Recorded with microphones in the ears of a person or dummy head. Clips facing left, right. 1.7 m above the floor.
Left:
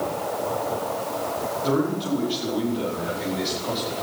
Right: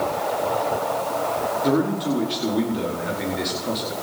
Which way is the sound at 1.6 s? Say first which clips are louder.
Right 2 dB; 30° right (ahead or behind).